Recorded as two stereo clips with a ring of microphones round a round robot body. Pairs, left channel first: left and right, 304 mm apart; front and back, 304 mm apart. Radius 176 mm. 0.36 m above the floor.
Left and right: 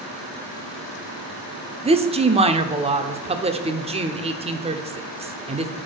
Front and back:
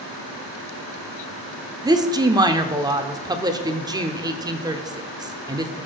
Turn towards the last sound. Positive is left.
turn(degrees=-125)